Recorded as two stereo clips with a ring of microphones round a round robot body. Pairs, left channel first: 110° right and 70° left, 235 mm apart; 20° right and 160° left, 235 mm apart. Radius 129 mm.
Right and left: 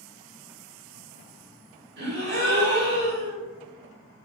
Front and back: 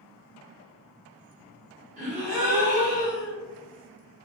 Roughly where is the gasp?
Left.